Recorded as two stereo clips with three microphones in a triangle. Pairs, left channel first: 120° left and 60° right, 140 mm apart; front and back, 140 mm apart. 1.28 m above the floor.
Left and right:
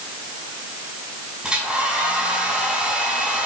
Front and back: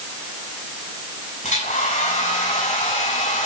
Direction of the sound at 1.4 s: 25° left.